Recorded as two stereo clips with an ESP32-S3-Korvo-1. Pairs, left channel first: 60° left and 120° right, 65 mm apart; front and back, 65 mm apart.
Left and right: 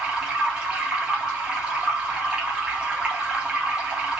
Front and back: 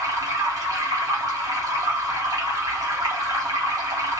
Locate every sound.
0.0 s running water: 165° left, 1.0 m